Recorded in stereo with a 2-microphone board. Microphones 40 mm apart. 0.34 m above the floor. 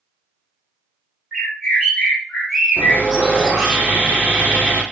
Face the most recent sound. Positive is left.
turn(degrees=-60)  # may be behind; listen again after turning